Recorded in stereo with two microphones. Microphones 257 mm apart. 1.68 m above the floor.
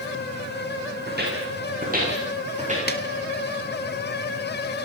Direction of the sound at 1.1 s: 40° right (ahead or behind).